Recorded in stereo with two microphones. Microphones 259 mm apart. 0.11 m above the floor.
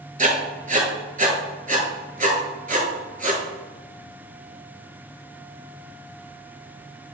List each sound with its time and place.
0.2 s writing: 30° right (ahead or behind), 0.6 m